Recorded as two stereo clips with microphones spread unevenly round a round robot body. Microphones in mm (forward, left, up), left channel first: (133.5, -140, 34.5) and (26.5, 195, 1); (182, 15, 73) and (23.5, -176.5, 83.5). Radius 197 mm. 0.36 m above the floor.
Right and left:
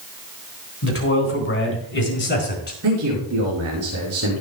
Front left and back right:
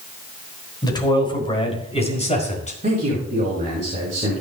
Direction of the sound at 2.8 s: 165° left.